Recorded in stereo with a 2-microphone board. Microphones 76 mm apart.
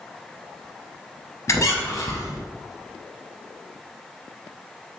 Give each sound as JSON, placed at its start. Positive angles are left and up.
{"t": 1.5, "sound": "a squeak", "side_deg": 45, "distance_m": 0.5}